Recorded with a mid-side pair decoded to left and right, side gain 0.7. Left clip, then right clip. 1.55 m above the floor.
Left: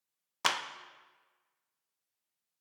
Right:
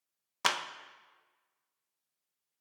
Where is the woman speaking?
No woman speaking in this recording.